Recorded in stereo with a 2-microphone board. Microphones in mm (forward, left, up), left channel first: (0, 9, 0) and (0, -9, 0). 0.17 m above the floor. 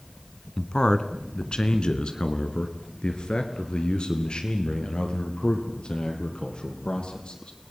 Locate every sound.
0.6 s a man speaking: 45° left (ahead or behind), 1.6 m; by 7.5 s 60° left (ahead or behind), 4.5 m